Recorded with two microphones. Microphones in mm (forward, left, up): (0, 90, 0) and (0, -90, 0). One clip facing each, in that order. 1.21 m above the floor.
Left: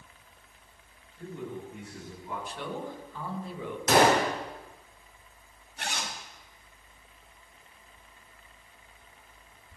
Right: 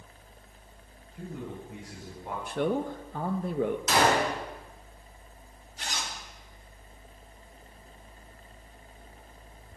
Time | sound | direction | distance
1.1 | a man speaking | 85° right | 9 m
2.5 | a man speaking | 50° right (ahead or behind) | 1.6 m
3.9 | a gunshot | 55° left (ahead or behind) | 4 m
5.8 | a zipper | 60° left (ahead or behind) | 2 m